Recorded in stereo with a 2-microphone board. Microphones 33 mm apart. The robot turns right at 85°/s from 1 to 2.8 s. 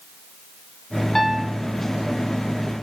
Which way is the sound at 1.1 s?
170° left.